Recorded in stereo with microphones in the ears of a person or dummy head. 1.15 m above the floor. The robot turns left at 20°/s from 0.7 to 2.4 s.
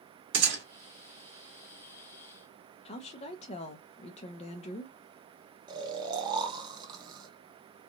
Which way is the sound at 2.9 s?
35° left (ahead or behind).